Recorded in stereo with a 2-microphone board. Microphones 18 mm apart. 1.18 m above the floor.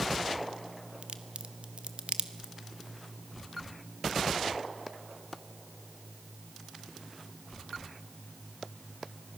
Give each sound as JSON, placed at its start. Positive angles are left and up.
{"t": 1.0, "sound": "a crack", "side_deg": -70, "distance_m": 1.2}